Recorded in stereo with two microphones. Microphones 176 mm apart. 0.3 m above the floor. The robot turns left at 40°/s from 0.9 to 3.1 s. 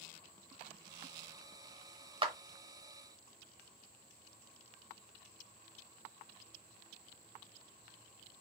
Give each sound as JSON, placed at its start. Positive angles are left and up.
{"t": 2.2, "sound": "a clap", "side_deg": -30, "distance_m": 0.7}